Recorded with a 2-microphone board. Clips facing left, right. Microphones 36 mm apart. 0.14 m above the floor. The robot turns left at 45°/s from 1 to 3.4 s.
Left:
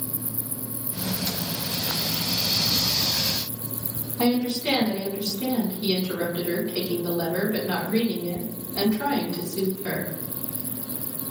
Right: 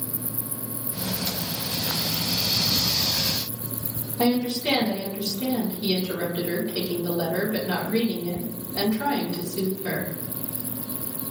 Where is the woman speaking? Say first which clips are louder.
Even; 20° left (ahead or behind), 1.4 m.